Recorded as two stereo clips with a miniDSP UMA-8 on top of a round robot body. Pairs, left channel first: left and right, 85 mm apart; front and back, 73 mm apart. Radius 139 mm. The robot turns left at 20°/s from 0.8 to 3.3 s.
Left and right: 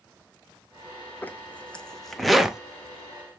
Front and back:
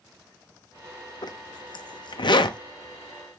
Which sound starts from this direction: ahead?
A zipper, at 1.2 s.